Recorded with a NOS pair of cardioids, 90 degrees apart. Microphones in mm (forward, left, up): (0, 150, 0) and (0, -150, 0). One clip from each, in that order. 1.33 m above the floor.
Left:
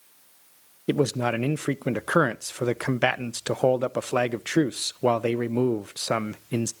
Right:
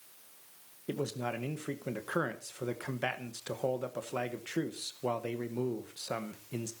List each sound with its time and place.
0.9 s a man speaking: 55° left, 0.7 m